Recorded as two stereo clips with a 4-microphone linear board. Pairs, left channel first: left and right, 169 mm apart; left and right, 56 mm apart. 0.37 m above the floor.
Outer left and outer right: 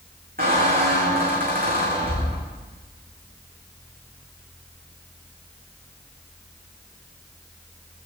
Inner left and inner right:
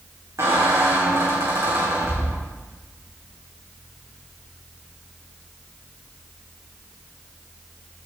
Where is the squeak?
55° right (ahead or behind), 4 m.